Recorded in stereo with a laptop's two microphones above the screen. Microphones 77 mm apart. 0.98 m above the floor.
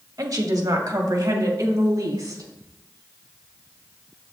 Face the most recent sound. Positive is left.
turn(degrees=-55)  # may be behind; listen again after turning